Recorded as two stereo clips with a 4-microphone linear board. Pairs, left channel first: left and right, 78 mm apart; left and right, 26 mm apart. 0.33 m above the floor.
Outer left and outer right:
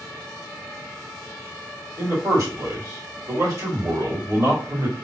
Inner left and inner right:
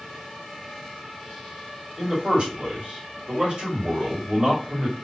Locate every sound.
2.0 s a man speaking: 50° right (ahead or behind), 2.0 m